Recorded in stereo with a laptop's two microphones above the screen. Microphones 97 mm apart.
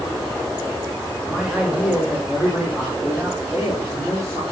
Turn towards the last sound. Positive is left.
turn(degrees=-35)  # may be behind; listen again after turning